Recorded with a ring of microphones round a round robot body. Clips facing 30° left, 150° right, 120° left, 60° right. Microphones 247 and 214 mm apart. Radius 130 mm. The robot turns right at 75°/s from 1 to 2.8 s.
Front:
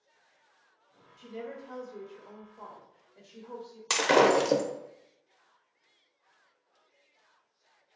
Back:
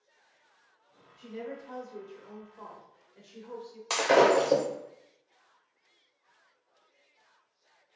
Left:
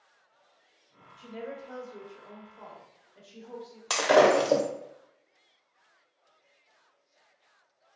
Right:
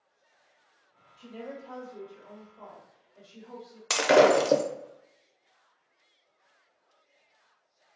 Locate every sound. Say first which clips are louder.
1.2 s a woman speaking: back 1 dB, left 1 dB; 55° left, 1.0 m; by 3.8 s 175° left, 1.0 m
3.9 s breaking glass: back 1 dB, right 1 dB; 15° right, 0.5 m